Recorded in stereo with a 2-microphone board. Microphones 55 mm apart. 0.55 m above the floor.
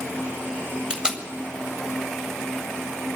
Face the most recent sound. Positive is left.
turn(degrees=-15)  # may be behind; listen again after turning